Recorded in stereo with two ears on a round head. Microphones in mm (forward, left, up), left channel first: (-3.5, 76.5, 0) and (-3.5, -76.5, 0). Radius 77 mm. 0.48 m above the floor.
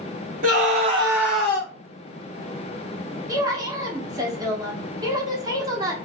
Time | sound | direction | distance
0.4 | a scream | 50° right (ahead or behind) | 1.0 m
3.3 | a woman speaking | 20° right (ahead or behind) | 0.7 m